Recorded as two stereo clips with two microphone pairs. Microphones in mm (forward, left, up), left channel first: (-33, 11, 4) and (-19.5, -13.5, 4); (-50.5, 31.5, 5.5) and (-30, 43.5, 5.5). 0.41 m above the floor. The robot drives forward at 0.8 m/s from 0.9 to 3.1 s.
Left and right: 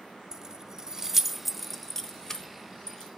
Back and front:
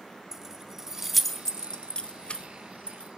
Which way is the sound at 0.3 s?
25° right.